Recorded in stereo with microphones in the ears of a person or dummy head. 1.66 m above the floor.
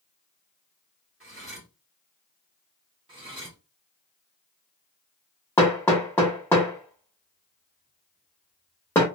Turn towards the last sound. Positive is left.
turn(degrees=10)  # may be behind; listen again after turning